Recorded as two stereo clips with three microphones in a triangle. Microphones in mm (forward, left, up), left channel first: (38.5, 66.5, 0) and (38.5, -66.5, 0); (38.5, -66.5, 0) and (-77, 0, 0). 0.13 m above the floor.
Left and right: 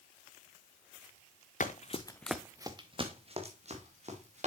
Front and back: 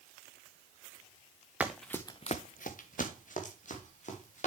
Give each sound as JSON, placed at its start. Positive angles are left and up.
{"t": 1.6, "sound": "running footsteps", "azimuth_deg": 70, "distance_m": 1.1}